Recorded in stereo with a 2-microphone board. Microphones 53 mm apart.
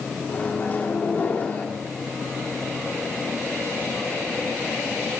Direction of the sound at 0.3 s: 35° left (ahead or behind).